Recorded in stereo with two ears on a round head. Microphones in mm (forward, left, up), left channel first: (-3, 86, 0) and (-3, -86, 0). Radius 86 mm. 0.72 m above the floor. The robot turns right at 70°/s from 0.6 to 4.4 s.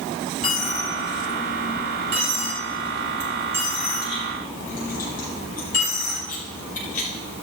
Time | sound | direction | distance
0.4 | a dropped coin | 40° left (ahead or behind) | 8 m